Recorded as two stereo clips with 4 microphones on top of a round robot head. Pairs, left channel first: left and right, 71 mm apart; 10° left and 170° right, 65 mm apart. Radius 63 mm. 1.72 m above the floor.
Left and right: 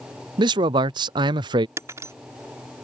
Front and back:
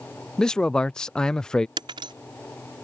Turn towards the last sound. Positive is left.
turn(degrees=-150)